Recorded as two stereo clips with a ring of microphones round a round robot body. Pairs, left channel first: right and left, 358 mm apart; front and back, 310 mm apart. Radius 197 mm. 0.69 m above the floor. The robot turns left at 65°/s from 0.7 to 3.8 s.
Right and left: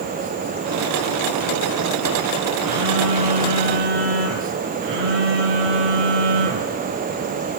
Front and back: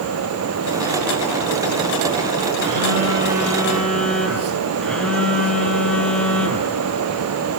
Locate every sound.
2.6 s a phone buzzing: 165° left, 5.5 m; by 6.8 s 85° left, 5.5 m